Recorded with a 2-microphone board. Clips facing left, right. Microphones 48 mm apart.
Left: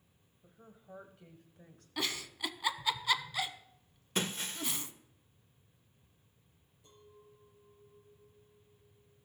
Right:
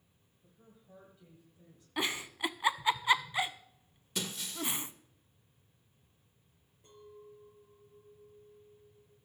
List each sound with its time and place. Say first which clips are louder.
0.4 s a woman speaking: left 5 dB; 35° left (ahead or behind), 1.6 m; by 1.9 s 55° left (ahead or behind), 1.6 m
2.0 s a giggle: right 3 dB; 25° right (ahead or behind), 0.5 m
4.2 s breaking glass: left 3 dB; 40° left (ahead or behind), 0.7 m
6.8 s a clink: right 6 dB; 40° right (ahead or behind), 4.5 m